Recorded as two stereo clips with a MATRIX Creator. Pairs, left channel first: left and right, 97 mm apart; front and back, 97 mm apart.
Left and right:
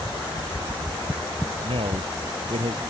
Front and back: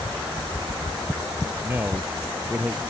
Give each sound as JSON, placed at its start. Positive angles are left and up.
{"t": 1.6, "sound": "a man speaking", "azimuth_deg": -110}